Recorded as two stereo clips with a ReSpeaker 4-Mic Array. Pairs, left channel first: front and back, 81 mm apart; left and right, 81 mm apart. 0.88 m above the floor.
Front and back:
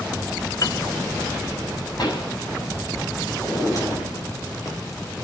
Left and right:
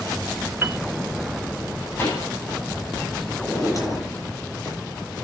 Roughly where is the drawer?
Ahead left.